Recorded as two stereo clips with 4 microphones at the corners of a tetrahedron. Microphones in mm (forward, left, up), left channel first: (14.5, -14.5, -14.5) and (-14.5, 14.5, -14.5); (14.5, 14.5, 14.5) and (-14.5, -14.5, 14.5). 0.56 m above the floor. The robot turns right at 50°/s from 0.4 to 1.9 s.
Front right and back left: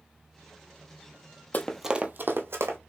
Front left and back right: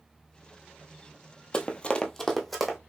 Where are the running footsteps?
10° right, 0.7 m; by 2.8 s 140° left, 1.5 m.